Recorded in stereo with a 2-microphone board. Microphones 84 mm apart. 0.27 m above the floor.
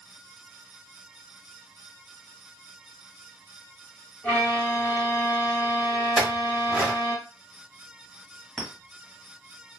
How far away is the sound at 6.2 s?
About 1.3 m.